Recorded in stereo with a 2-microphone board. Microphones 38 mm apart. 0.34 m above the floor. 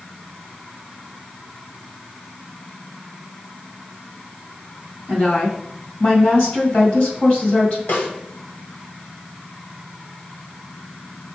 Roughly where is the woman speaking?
Left.